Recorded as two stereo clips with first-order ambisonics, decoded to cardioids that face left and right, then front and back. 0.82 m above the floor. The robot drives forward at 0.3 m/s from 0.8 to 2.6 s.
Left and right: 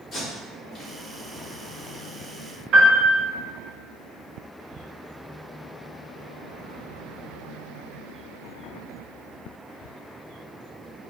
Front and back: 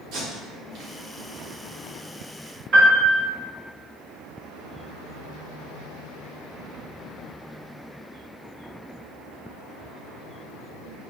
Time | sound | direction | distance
0.1 | tape being pulled | 155° left | 1.0 m
2.7 | a piano | 130° right | 1.1 m